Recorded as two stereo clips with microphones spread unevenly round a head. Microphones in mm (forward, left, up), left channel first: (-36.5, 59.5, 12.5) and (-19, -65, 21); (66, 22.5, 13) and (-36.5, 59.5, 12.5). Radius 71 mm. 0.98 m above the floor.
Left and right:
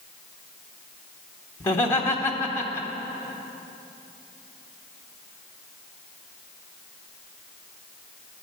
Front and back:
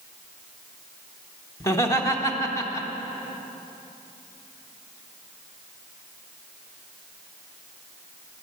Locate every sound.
1.6 s laughter: 35° left, 1.1 m